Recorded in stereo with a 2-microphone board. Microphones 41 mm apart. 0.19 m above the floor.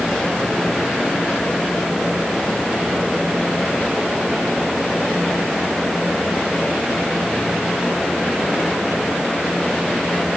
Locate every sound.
Only background noise.